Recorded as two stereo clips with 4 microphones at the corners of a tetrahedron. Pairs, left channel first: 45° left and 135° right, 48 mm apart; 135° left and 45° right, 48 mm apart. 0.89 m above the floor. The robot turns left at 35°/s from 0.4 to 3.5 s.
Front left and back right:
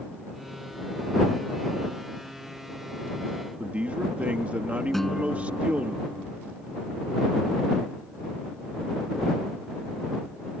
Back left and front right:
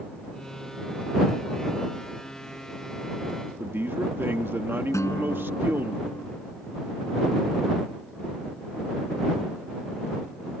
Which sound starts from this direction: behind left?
A guitar, at 4.9 s.